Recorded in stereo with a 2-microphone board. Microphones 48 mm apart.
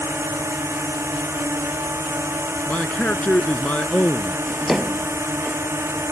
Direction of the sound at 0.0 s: 70° right (ahead or behind).